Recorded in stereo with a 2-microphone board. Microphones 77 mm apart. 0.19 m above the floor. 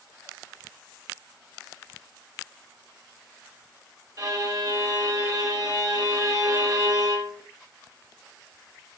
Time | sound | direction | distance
4.2 | a violin | 55° right (ahead or behind) | 4 m